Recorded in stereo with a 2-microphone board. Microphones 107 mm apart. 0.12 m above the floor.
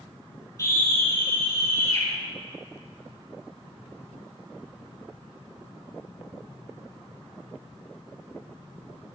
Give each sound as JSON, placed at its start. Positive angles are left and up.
{"t": 0.6, "sound": "a scream", "side_deg": 30, "distance_m": 5.5}